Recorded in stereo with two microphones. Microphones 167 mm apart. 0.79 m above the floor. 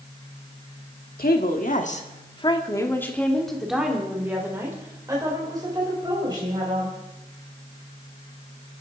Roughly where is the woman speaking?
Left.